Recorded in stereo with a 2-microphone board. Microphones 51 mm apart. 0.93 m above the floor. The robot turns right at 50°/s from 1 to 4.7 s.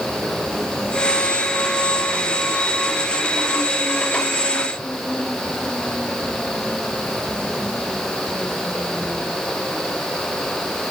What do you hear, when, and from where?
Only background noise.